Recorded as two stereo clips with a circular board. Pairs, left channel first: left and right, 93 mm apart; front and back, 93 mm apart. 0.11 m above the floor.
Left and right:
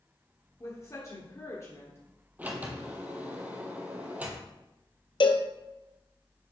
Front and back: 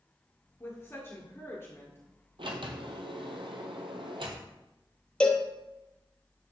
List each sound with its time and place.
0.6 s a woman speaking: 50° left, 1.6 m
2.4 s a sliding door: 160° right, 1.2 m
5.2 s a cowbell: 80° left, 0.8 m